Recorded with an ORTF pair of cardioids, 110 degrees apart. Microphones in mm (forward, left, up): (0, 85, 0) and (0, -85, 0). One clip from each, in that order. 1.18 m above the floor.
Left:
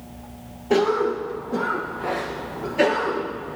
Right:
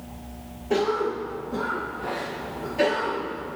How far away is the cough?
About 0.6 m.